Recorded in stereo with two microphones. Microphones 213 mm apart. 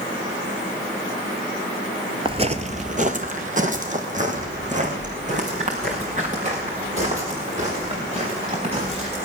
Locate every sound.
2.2 s footsteps: 25° right (ahead or behind), 0.9 m; by 9.2 s 30° right (ahead or behind), 8 m